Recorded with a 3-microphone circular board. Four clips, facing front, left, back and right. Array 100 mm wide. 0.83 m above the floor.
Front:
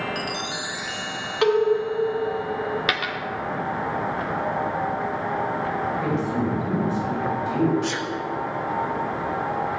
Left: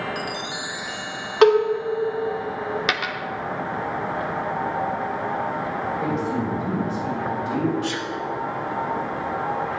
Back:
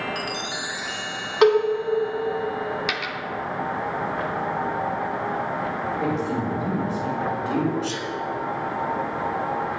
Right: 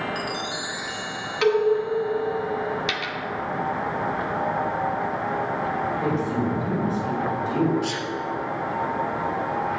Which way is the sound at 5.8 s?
155° left.